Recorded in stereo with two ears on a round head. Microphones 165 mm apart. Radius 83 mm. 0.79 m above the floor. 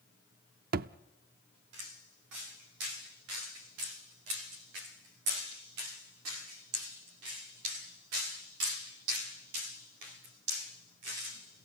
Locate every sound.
0.7 s a thud: 55° right (ahead or behind), 0.5 m